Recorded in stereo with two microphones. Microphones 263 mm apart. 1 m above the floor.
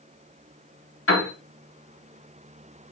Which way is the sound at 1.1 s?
55° left (ahead or behind).